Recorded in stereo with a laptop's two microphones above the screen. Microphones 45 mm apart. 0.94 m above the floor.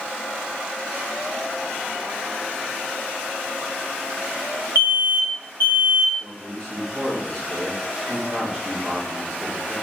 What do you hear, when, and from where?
4.8 s an alarm: 60° right (ahead or behind), 2.5 m
6.2 s a man speaking: 60° right (ahead or behind), 1.7 m